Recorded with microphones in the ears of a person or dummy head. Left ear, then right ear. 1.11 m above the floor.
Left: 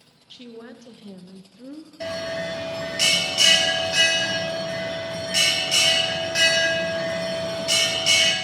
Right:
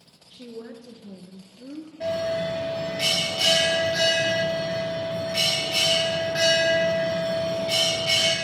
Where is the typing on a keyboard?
No typing on a keyboard in this recording.